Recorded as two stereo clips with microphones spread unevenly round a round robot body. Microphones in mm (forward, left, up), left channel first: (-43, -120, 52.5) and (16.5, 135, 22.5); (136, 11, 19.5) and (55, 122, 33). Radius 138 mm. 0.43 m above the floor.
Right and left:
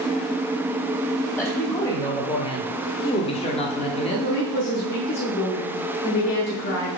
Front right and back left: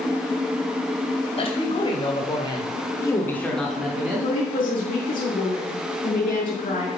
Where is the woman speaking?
45° right, 2.5 m.